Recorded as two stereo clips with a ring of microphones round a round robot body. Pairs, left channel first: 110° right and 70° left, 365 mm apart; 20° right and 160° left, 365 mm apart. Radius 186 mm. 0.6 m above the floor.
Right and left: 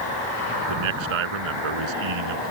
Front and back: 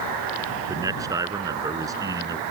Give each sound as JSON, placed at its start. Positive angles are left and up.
{"t": 0.7, "sound": "a man speaking", "azimuth_deg": 75}